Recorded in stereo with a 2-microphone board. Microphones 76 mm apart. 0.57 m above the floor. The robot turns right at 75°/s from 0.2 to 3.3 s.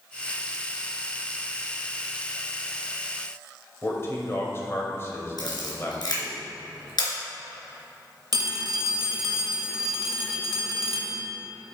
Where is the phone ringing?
70° right (ahead or behind), 1.5 m.